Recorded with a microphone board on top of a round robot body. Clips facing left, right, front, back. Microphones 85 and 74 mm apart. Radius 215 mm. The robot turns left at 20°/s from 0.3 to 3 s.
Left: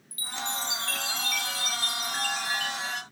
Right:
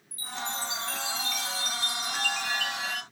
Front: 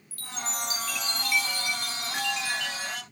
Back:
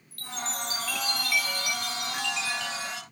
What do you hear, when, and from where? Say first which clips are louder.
0.1 s a chime: left 1 dB, even; 85° left, 1.0 m; by 3.0 s 30° left, 1.0 m